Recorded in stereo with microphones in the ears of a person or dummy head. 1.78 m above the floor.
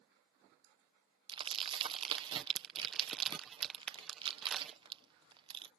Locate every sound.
1.3 s crumpling: 25° right (ahead or behind)